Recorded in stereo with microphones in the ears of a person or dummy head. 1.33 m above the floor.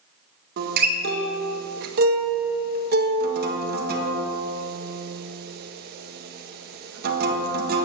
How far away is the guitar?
About 1.7 m.